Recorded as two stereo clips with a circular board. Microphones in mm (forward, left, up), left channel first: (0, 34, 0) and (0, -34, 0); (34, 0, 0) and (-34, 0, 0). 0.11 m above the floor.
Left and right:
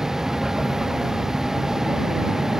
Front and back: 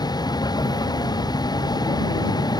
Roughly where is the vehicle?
Ahead.